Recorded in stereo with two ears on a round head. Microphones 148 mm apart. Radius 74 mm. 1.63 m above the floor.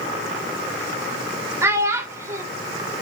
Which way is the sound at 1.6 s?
15° right (ahead or behind).